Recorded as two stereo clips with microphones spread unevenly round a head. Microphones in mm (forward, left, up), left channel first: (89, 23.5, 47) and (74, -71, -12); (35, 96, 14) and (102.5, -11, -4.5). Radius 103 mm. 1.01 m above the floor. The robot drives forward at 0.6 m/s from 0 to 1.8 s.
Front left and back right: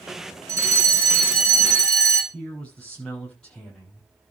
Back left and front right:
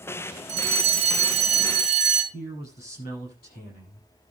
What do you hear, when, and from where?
0.5 s a fire alarm: 75° right, 2.5 m; by 2.2 s 95° right, 2.5 m
2.3 s a man speaking: 170° left, 8 m